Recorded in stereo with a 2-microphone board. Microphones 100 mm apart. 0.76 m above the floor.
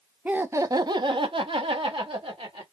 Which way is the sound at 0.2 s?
15° right (ahead or behind).